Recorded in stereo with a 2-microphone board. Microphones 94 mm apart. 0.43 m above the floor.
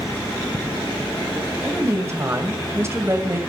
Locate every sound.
1.6 s a woman speaking: 30° right (ahead or behind), 2 m